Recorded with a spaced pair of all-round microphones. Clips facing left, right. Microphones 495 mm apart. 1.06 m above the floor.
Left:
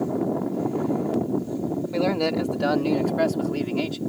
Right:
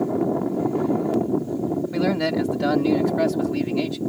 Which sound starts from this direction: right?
A man speaking, at 1.9 s.